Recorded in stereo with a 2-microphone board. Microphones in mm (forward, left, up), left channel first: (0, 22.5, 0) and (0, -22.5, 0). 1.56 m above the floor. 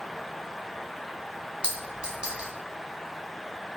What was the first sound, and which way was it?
A clink, 20° right (ahead or behind).